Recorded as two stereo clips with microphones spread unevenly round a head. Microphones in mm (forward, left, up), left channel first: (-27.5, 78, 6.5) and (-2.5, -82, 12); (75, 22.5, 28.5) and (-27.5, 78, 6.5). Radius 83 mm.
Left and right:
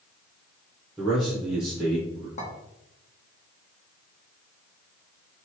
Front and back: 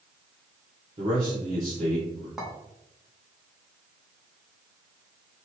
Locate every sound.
1.0 s a man speaking: 165° right, 0.8 m
2.4 s a clink: 55° left, 1.0 m